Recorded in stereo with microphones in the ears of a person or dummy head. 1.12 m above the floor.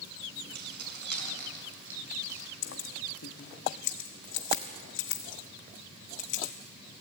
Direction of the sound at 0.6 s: 70° right (ahead or behind).